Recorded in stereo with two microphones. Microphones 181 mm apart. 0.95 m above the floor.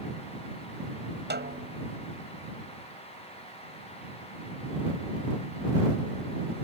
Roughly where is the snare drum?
Right.